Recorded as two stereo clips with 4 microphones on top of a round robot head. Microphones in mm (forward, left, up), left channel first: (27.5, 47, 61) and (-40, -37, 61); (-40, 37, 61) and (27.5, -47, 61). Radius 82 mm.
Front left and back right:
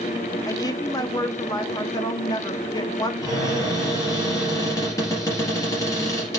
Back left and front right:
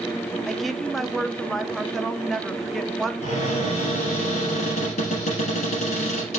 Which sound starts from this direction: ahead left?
A woman speaking, at 0.5 s.